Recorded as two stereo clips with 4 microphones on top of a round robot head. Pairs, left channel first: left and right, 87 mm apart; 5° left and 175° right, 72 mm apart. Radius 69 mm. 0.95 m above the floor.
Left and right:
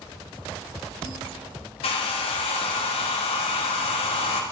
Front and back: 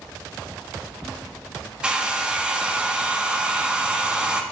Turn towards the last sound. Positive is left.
turn(degrees=110)